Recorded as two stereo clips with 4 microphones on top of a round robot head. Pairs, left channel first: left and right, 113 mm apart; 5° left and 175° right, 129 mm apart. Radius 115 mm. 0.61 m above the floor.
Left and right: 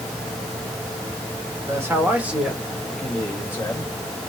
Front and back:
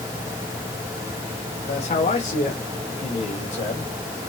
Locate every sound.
1.7 s a man speaking: 25° right, 2.5 m; by 3.9 s 30° left, 2.5 m